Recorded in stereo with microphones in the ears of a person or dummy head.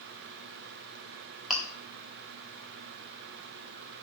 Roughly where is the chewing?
Centre.